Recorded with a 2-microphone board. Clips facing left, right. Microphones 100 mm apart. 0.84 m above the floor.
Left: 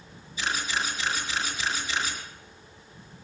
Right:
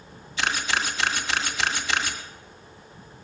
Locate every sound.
0.4 s a camera shutter: 70° right (ahead or behind), 2 m